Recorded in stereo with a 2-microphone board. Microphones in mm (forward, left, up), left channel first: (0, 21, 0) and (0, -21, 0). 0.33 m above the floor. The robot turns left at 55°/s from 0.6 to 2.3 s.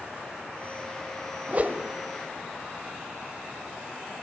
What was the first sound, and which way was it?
A whoosh, 35° right (ahead or behind).